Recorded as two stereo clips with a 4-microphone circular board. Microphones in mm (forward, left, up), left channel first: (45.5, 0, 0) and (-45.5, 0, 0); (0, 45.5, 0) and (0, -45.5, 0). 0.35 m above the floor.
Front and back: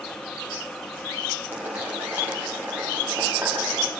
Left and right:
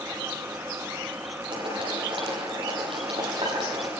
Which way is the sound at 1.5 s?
110° right.